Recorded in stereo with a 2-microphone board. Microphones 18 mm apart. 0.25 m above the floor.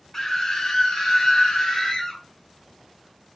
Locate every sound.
0.1 s a scream: 25° left (ahead or behind), 1.0 m